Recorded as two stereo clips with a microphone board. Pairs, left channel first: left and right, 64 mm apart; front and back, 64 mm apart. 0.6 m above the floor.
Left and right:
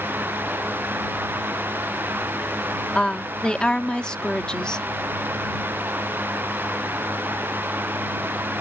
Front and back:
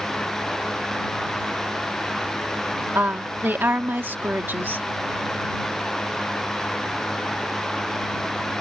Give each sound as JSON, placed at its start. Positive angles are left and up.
{"t": 3.0, "sound": "a woman speaking", "azimuth_deg": 160}